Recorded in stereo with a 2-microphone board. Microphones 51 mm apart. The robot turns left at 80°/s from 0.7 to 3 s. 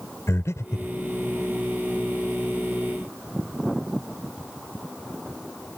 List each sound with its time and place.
0.3 s breathing: 75° left (ahead or behind); by 0.9 s 55° left (ahead or behind)